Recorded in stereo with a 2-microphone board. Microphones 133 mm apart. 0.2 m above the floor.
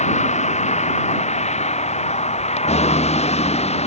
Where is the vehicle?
65° left (ahead or behind); by 3.9 s 55° left (ahead or behind).